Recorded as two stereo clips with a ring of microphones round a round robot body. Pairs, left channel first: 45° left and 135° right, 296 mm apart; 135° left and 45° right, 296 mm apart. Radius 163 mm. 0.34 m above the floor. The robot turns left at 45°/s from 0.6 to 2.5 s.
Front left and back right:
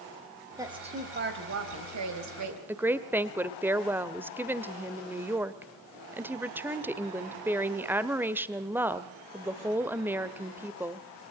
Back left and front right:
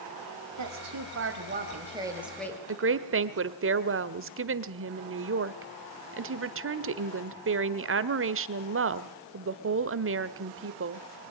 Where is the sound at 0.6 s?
55° right, 3 m; by 2.6 s 145° right, 3 m.